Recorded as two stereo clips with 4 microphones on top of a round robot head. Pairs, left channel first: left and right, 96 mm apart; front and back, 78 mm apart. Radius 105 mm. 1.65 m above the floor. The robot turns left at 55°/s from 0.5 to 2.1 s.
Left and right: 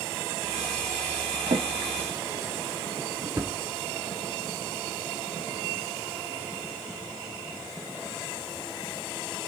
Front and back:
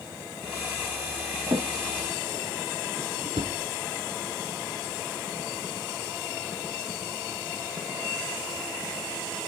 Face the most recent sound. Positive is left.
turn(degrees=-150)